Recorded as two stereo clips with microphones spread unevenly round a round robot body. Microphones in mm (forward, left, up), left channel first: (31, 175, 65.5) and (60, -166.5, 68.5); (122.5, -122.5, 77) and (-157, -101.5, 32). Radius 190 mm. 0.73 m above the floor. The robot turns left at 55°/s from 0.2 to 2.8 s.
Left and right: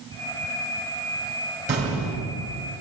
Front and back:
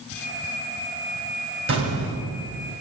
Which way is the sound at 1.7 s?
155° right.